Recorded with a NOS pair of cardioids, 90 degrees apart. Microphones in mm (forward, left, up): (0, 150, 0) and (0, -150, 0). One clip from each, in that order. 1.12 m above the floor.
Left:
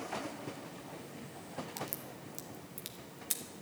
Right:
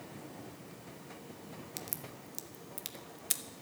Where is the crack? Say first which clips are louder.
Left 3 dB; 15° right, 0.9 m.